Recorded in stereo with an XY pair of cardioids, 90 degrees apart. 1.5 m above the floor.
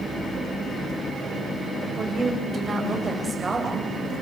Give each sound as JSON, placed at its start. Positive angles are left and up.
{"t": 2.0, "sound": "a woman speaking", "azimuth_deg": -35, "distance_m": 7.5}